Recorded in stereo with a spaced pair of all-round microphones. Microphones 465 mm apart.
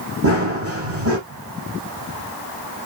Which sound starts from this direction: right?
Running footsteps, at 0.2 s.